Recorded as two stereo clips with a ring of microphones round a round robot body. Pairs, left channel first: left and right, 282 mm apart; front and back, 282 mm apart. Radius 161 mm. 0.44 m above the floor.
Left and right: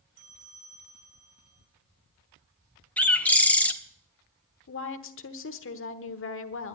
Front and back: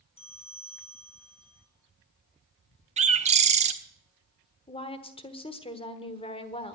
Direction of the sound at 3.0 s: 170° left.